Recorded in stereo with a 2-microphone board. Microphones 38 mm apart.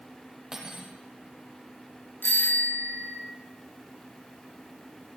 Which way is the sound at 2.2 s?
55° left (ahead or behind).